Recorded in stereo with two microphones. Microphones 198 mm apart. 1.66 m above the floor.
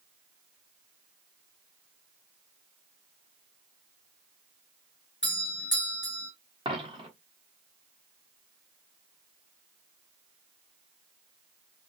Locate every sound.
5.2 s a doorbell: 70° left (ahead or behind), 1.9 m
6.7 s a dropped coin: 25° right (ahead or behind), 1.3 m